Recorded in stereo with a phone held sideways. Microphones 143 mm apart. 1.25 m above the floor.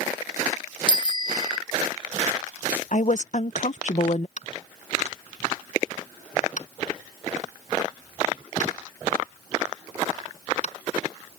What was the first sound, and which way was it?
A bicycle bell, 35° left (ahead or behind).